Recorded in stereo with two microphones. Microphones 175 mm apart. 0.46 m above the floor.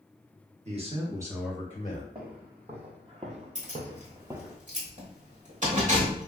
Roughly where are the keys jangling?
Right.